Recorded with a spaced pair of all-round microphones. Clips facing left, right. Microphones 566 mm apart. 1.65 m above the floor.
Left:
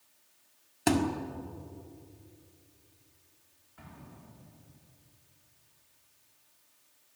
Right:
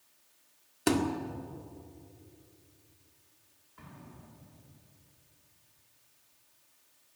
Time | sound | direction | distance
0.9 | a thud | 20° left (ahead or behind) | 1.6 m
3.8 | an explosion | 10° left (ahead or behind) | 4 m